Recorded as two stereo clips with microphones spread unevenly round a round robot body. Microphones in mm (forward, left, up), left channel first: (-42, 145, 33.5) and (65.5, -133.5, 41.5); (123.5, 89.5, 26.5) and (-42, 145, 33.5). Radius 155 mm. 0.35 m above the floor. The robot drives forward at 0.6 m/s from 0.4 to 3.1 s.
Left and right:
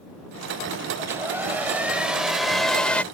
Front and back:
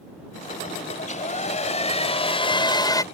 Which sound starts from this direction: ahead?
A hair dryer, at 1.0 s.